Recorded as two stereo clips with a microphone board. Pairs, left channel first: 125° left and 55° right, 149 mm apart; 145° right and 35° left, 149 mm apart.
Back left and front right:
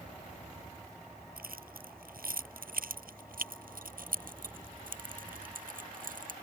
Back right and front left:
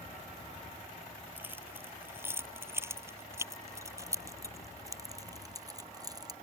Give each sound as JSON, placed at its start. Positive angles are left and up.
{"t": 1.4, "sound": "keys jangling", "azimuth_deg": -45}